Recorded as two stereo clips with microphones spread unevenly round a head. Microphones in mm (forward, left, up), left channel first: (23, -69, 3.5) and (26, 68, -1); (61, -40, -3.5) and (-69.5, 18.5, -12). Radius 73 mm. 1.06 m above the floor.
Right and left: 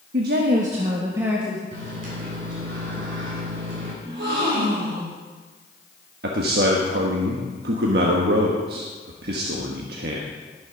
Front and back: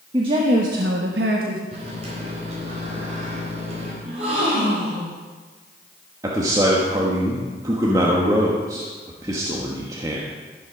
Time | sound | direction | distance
0.1 | a woman speaking | 95° left | 1.2 m
1.7 | a microwave | 105° left | 3.5 m
4.0 | a gasp | 110° left | 4.5 m
6.2 | a man speaking | 90° left | 1.2 m